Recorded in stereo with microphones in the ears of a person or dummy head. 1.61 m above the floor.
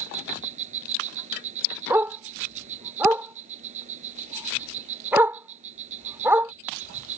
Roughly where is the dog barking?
Centre.